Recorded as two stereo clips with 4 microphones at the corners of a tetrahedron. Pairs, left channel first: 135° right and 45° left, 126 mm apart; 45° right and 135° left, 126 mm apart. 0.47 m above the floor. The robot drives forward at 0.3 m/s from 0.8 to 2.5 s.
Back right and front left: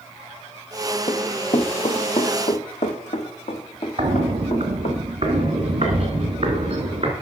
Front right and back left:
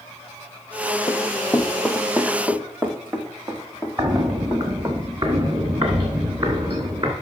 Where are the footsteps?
85° left, 1.4 m; by 7.1 s 90° left, 3.5 m.